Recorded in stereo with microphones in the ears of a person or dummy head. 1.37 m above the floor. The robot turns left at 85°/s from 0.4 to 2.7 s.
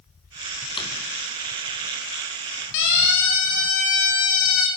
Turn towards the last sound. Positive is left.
turn(degrees=70)  # may be behind; listen again after turning